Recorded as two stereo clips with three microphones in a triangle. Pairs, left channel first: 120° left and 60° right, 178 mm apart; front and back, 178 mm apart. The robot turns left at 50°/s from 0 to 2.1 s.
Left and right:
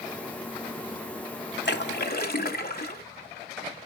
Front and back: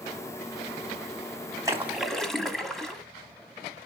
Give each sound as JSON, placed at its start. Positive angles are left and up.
{"t": 1.6, "sound": "a splash", "azimuth_deg": 110, "distance_m": 1.2}